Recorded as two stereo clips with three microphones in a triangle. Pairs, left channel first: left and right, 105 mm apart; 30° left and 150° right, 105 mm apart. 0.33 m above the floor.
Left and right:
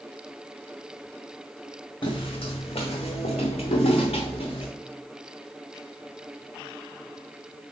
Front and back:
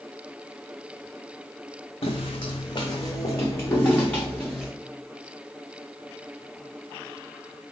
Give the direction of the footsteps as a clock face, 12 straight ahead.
10 o'clock.